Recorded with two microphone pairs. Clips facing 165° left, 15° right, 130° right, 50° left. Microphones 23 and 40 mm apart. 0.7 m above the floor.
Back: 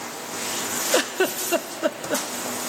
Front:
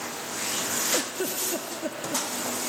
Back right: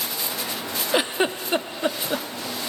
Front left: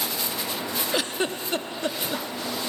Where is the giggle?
165° left, 0.5 m.